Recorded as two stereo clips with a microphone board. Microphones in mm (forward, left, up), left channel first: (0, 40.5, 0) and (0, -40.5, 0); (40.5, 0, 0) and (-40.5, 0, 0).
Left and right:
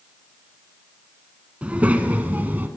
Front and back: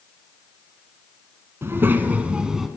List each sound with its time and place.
1.6 s a child speaking: 150° right, 1.2 m; by 2.7 s 100° right, 1.0 m